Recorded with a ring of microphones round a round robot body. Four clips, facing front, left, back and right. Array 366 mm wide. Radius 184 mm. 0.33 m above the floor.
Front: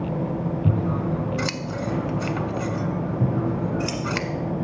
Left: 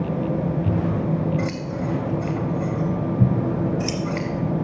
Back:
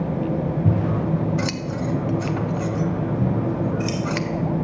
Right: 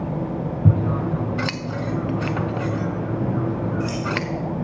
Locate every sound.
0.7 s scissors: 85° right, 1.0 m
3.2 s scissors: 75° left, 3.5 m